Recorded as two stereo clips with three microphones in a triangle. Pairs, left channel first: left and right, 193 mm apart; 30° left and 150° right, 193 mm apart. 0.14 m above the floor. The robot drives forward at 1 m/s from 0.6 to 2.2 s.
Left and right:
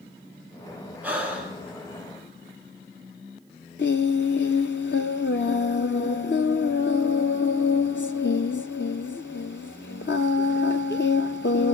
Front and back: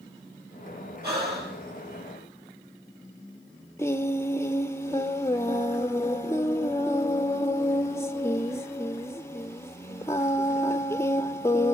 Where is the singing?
105° left, 0.6 m.